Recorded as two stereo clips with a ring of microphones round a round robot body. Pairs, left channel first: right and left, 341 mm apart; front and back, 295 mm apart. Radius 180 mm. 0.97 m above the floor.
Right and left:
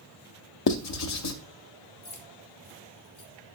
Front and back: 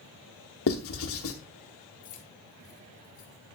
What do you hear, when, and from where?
0.7 s writing: 50° right, 0.7 m
2.0 s keys jangling: 45° right, 1.7 m